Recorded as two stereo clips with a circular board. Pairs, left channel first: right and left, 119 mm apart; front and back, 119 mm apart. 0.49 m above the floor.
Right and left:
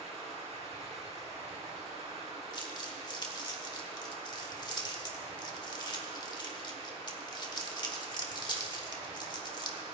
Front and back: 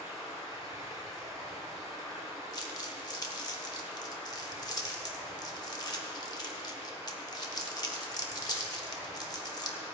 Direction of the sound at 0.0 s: 120° left.